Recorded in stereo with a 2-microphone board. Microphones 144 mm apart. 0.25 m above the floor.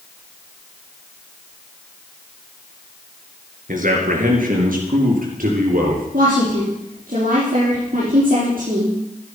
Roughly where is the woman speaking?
Right.